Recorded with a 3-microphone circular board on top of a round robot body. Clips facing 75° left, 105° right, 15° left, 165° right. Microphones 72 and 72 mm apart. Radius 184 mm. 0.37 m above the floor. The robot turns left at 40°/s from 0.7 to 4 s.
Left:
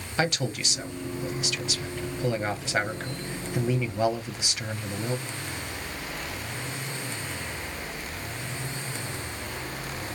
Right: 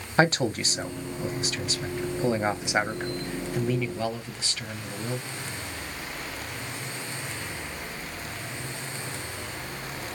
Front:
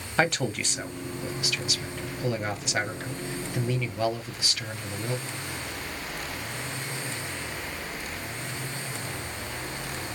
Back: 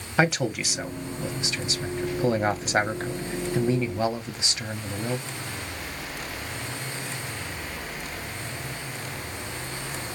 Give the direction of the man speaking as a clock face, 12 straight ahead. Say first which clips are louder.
Right 5 dB, back 2 dB; 3 o'clock.